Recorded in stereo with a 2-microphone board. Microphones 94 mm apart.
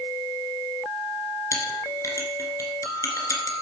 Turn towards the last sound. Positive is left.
turn(degrees=35)  # may be behind; listen again after turning